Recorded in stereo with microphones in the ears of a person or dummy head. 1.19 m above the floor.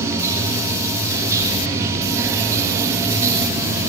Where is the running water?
15° right (ahead or behind), 1.1 m.